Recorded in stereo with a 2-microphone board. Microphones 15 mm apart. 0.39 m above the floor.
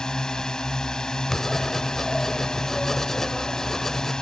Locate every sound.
0.0 s a drone: 45° left (ahead or behind)
1.3 s writing: 25° left (ahead or behind)